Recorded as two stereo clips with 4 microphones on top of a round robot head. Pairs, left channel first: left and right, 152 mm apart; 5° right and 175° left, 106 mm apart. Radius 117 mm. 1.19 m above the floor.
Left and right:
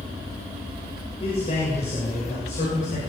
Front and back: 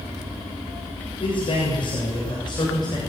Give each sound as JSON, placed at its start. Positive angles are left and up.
{"t": 1.2, "sound": "a man speaking", "azimuth_deg": 30, "distance_m": 6.5}